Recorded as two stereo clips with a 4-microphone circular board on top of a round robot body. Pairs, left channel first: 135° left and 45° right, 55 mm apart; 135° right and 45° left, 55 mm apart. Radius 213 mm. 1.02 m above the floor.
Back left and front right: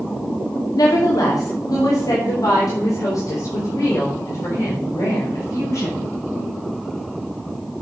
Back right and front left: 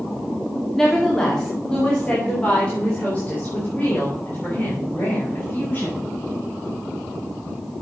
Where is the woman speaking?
140° left, 2.5 m; by 6.0 s 165° left, 7 m.